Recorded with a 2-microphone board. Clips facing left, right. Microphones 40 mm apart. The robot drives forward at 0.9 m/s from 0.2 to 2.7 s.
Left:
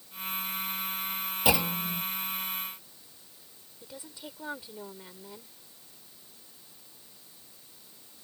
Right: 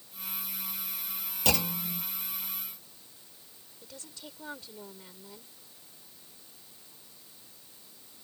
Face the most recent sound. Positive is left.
turn(degrees=15)  # may be behind; listen again after turning